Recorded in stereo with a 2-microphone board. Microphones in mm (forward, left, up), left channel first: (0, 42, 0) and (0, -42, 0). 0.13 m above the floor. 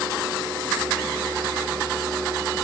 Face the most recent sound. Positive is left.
No sound to turn to.